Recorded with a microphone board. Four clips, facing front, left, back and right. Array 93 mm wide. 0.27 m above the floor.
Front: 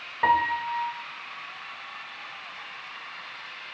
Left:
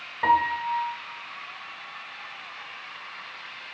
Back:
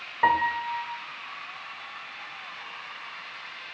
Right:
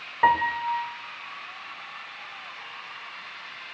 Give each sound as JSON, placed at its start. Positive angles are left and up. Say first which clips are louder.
{"t": 0.2, "sound": "a piano", "louder": "even, even", "azimuth_deg": -100, "distance_m": 0.8}